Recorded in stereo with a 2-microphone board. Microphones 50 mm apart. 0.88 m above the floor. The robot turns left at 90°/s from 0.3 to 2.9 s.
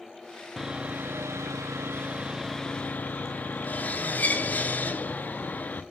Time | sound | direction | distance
0.6 | sawing | 5° right | 0.6 m